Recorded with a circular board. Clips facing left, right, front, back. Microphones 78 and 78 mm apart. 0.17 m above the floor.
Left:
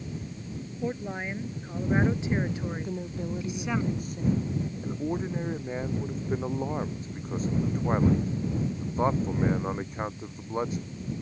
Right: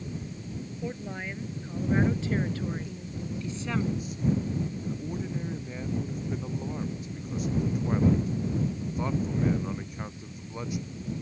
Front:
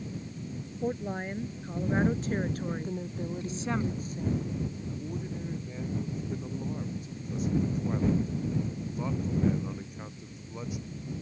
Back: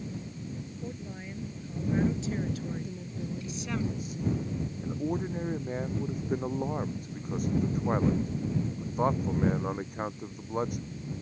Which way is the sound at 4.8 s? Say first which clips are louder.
Left 3 dB, back 5 dB; 140° left.